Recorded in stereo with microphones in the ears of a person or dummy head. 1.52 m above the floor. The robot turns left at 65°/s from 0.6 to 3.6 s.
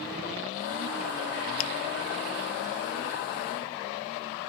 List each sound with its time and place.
1.6 s a finger snap: 75° left (ahead or behind), 1.6 m; by 1.7 s 85° left, 1.6 m